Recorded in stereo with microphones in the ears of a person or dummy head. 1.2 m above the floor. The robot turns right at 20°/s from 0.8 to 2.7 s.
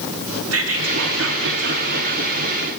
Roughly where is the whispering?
Right.